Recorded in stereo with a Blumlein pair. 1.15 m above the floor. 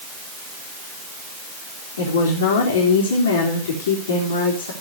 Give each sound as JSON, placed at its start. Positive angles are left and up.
{"t": 2.0, "sound": "a woman speaking", "azimuth_deg": 65, "distance_m": 3.5}